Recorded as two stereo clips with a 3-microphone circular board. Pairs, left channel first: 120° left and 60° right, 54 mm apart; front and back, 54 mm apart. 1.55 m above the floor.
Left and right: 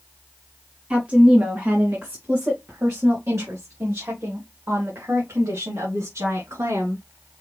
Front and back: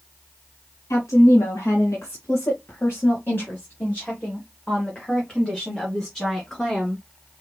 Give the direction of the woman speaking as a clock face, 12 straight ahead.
12 o'clock.